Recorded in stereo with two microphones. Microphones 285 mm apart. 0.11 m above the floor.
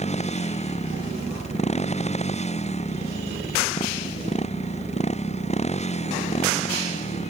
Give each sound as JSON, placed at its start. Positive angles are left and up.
{"t": 0.0, "sound": "a motorcycle", "side_deg": 20}